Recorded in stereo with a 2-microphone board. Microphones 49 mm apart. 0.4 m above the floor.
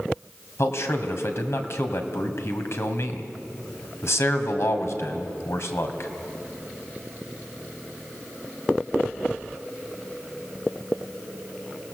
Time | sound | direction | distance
0.6 | a man speaking | 65° left (ahead or behind) | 2.5 m